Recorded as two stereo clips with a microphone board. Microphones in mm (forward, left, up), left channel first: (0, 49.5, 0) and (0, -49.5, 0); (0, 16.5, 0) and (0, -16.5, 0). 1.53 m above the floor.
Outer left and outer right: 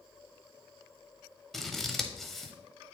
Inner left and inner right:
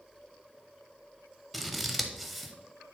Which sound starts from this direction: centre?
Scissors, at 1.5 s.